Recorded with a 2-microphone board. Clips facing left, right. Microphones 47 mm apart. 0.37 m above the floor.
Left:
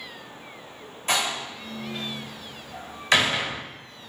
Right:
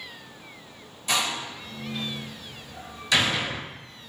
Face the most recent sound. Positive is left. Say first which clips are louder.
# left 1 dB
turn(degrees=45)  # may be behind; listen again after turning